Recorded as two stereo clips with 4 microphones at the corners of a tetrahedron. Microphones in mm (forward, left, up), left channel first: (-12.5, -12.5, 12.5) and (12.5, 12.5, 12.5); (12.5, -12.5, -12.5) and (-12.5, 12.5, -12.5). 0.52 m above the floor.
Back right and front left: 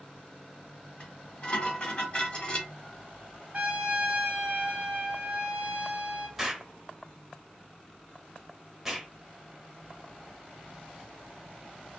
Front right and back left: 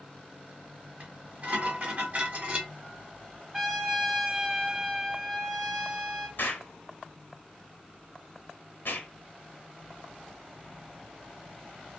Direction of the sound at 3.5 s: 55° left.